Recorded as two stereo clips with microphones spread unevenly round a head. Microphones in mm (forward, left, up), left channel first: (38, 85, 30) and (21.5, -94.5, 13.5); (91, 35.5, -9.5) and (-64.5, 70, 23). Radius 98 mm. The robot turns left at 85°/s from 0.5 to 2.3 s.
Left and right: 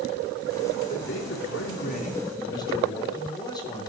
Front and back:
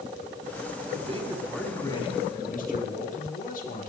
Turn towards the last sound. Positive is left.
turn(degrees=20)